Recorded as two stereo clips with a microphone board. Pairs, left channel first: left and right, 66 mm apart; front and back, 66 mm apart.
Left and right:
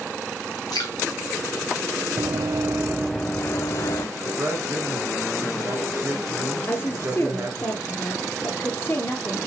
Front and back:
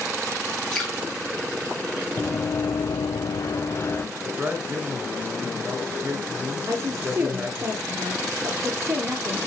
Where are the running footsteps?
65° right, 0.9 m; by 4.1 s 55° left, 1.1 m.